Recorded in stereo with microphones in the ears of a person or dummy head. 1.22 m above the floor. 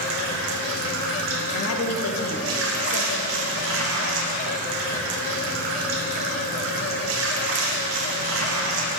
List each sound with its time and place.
0.0 s running water: 70° right (ahead or behind), 1.1 m
1.5 s a woman speaking: 85° left, 1.1 m